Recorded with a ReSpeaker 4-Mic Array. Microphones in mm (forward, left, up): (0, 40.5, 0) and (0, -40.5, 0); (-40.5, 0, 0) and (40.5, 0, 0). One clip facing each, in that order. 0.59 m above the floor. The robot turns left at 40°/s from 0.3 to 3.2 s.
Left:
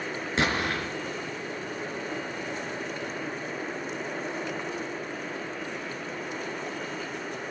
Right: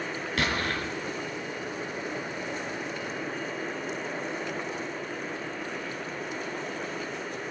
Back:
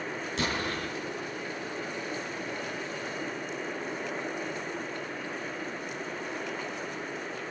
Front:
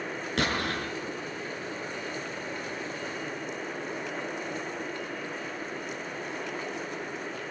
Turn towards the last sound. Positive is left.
turn(degrees=-85)